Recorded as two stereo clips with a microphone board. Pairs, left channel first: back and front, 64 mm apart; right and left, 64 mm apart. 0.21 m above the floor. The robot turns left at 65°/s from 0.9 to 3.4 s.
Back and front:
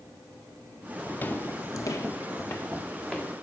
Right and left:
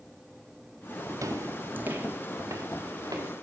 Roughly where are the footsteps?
Behind left.